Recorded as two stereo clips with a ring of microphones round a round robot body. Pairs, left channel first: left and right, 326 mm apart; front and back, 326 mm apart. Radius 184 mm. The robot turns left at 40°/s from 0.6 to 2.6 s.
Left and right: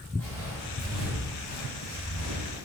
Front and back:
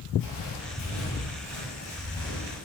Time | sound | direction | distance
0.2 | footsteps | 5° left | 1.3 m